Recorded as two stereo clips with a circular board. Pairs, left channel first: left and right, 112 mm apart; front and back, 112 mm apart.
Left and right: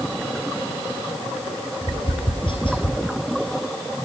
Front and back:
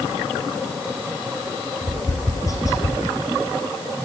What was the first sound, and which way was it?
Tapping, 55° left.